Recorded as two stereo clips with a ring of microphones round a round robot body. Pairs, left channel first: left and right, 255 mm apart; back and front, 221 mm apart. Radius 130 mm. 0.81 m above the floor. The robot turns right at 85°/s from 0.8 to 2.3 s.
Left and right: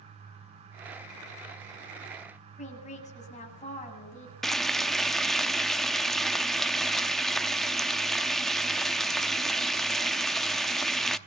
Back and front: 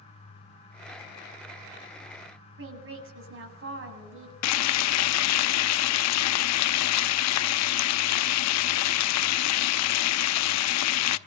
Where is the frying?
Straight behind, 0.7 m.